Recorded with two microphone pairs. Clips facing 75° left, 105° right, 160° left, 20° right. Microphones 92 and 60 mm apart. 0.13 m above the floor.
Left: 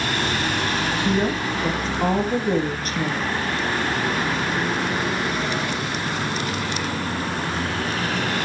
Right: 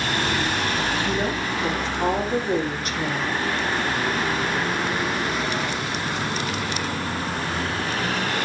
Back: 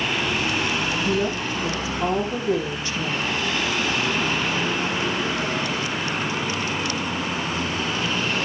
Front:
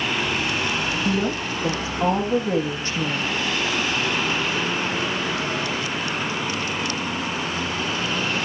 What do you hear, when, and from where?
1.1 s a woman speaking: 25° left, 5 m